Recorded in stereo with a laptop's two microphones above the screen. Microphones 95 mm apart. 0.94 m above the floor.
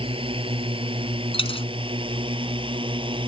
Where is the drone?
70° right (ahead or behind); by 3.3 s 60° right (ahead or behind).